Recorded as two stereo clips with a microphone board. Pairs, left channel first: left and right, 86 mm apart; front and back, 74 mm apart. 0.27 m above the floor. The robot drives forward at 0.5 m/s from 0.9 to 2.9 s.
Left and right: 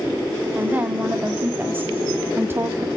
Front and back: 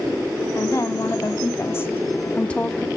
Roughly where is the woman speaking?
Ahead right.